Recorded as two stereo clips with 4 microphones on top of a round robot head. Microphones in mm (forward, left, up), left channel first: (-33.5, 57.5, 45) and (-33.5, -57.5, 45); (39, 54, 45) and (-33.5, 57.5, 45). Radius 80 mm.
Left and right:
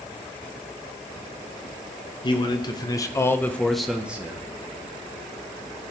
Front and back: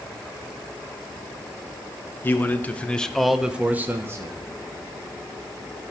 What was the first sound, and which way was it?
A man speaking, 50° left.